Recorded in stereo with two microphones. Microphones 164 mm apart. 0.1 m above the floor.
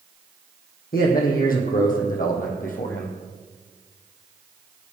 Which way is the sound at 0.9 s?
60° left (ahead or behind).